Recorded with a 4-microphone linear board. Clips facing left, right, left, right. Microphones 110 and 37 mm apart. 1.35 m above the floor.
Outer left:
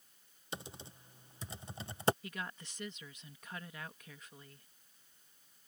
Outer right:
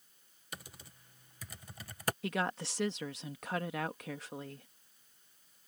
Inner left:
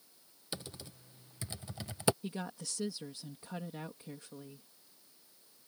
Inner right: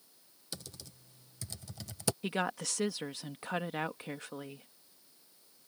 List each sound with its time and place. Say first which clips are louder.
0.5 s typing on a keyboard: outer left 4 dB, inner left 3 dB; 25° left (ahead or behind)
2.2 s a woman speaking: outer right 10 dB, inner right 8 dB; 85° right